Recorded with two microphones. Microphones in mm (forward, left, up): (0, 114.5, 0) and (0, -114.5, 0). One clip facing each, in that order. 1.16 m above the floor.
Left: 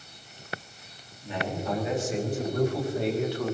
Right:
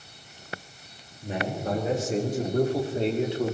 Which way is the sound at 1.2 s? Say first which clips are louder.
Right 2 dB; 45° right (ahead or behind).